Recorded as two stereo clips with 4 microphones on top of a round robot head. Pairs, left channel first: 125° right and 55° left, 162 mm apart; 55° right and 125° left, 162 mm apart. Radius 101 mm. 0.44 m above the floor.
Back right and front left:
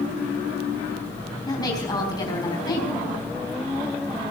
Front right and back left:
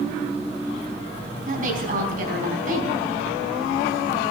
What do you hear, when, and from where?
1.5 s a woman speaking: 165° left, 4.5 m